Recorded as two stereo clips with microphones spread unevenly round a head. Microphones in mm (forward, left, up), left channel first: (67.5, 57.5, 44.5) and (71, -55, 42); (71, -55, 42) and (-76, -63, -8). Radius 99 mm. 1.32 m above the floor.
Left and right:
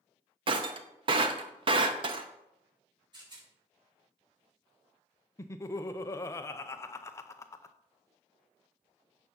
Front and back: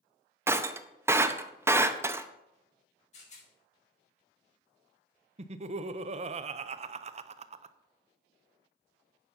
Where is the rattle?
40° right, 4.5 m.